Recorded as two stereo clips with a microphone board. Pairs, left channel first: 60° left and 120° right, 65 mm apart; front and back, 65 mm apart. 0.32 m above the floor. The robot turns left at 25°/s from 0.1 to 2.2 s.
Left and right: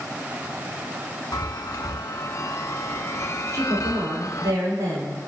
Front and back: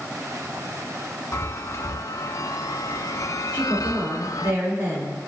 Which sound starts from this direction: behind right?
A woman speaking, at 3.5 s.